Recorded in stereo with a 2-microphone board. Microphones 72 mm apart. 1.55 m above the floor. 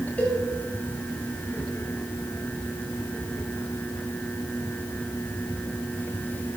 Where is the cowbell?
20° left (ahead or behind), 3 m.